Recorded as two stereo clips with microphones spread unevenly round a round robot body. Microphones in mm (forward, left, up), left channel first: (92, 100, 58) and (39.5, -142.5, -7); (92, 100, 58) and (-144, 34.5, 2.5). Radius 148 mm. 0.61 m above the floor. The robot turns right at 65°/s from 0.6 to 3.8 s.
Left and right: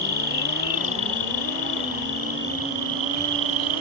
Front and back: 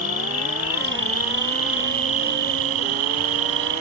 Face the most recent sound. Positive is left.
turn(degrees=-115)